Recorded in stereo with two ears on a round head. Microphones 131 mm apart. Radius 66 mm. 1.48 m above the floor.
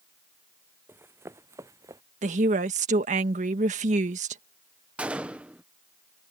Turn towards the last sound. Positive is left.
turn(degrees=-10)  # may be behind; listen again after turning